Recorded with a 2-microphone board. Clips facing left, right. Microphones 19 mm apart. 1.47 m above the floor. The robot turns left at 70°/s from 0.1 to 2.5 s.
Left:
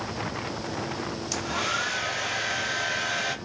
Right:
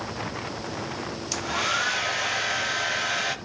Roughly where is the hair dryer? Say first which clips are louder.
Right 3 dB; centre.